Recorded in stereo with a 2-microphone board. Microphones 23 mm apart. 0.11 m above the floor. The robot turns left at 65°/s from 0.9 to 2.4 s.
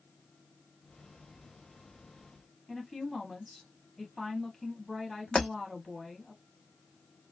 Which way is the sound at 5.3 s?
50° left (ahead or behind).